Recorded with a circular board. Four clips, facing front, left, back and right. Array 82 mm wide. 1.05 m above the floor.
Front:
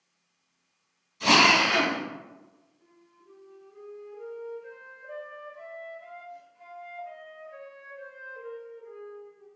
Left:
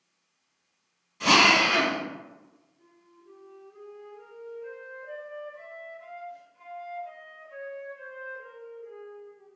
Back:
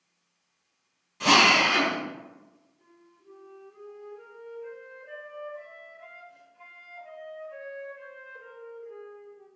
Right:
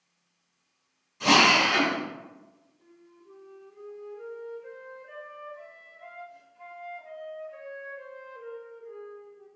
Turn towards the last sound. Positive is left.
turn(degrees=145)